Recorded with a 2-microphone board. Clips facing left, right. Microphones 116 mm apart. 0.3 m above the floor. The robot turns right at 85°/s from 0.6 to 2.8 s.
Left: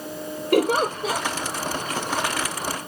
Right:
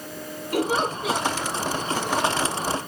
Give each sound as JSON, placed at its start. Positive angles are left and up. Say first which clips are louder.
{"t": 0.5, "sound": "a giggle", "louder": "left 4 dB", "azimuth_deg": 115, "distance_m": 3.0}